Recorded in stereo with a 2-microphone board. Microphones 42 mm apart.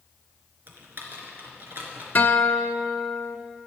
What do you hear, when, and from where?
0.7 s typing on a keyboard: 55° right (ahead or behind), 3 m
2.1 s a guitar: 45° left (ahead or behind), 1.0 m